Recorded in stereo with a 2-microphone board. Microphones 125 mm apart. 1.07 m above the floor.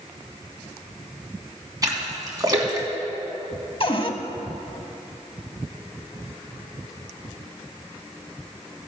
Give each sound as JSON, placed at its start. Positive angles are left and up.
{"t": 1.8, "sound": "a splash", "side_deg": -30, "distance_m": 1.9}
{"t": 3.8, "sound": "a cupboard door", "side_deg": 45, "distance_m": 0.8}